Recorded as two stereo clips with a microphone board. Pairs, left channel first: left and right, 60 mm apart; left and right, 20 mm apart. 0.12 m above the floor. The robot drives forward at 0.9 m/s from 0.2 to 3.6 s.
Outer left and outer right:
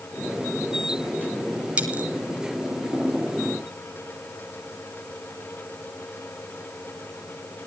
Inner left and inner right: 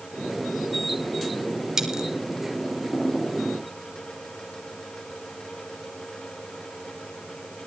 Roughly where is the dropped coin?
Centre.